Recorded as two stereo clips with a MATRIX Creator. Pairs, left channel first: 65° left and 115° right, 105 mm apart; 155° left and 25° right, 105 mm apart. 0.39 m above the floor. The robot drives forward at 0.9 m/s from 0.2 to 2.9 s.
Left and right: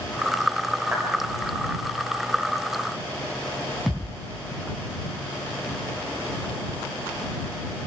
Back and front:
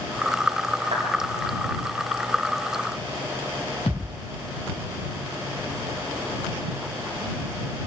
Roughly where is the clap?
Ahead right.